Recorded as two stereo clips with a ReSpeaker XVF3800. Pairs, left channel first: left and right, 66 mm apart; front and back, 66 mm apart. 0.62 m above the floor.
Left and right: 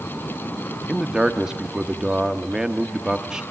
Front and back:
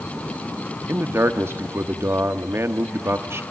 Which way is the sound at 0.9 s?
165° right.